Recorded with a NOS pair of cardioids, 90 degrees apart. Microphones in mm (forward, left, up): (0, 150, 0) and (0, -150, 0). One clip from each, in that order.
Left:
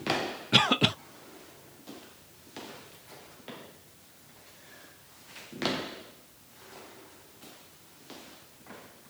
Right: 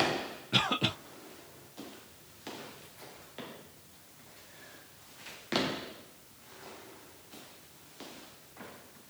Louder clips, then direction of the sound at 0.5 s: Left 6 dB; 35° left.